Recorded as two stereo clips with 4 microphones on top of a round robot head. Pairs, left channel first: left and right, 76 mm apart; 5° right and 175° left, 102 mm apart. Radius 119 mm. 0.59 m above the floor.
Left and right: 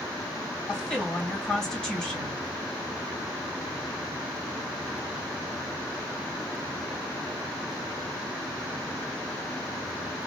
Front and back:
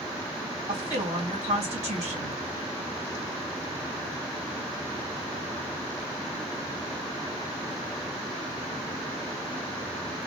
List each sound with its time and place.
0.7 s a woman speaking: 170° left, 3 m